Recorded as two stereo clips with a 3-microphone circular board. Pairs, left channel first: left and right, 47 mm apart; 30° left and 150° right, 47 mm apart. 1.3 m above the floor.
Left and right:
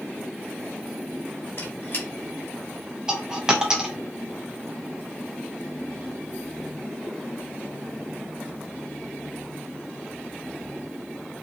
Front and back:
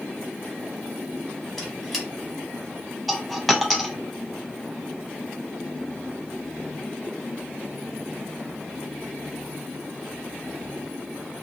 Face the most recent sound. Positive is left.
turn(degrees=-60)